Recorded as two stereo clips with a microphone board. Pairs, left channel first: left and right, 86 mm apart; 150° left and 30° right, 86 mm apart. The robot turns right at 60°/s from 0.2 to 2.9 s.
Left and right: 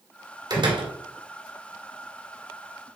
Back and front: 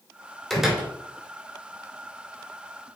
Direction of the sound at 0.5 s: 125° right.